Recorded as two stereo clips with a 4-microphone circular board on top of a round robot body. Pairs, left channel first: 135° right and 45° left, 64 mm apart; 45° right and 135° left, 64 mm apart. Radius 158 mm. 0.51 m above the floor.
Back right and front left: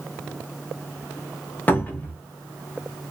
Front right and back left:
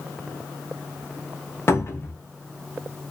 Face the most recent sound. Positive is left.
turn(degrees=-80)